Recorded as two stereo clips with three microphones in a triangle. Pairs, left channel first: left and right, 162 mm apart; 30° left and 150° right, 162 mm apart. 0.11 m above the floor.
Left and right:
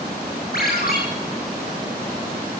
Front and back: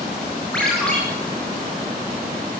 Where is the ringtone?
115° left, 8 m.